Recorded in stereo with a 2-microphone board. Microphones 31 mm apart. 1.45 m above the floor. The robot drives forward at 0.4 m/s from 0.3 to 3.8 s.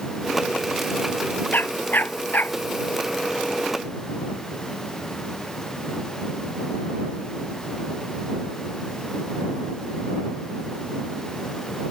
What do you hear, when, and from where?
1.5 s a dog barking: 85° left